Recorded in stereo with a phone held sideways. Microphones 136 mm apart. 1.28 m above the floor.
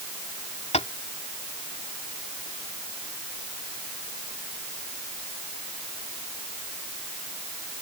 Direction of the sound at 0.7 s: 55° left (ahead or behind).